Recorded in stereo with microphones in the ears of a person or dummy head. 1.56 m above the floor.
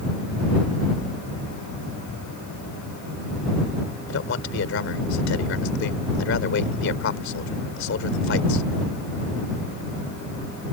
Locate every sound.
4.1 s a man speaking: 65° left (ahead or behind)